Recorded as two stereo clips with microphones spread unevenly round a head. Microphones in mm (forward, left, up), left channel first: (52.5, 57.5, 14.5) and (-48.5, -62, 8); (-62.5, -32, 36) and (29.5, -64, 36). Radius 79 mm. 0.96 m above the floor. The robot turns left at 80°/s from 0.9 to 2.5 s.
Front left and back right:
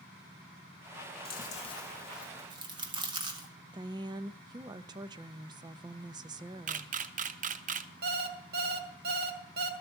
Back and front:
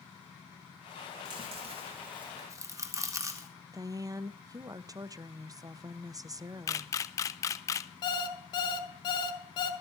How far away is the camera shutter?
About 0.7 m.